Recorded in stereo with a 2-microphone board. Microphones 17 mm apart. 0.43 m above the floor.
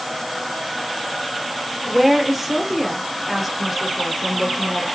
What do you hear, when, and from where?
1.9 s a woman speaking: centre (ahead or behind), 0.7 m